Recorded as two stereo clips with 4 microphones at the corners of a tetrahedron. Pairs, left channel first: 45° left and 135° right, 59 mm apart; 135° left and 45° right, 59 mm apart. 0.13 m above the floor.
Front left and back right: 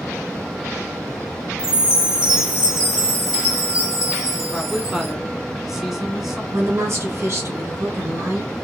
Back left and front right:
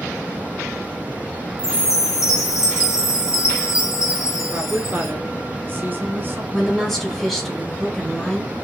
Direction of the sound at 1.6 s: 150° left.